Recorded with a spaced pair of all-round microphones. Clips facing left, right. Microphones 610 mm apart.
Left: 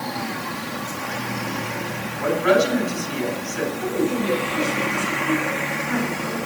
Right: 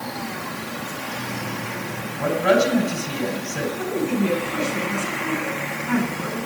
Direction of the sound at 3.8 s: 85° right.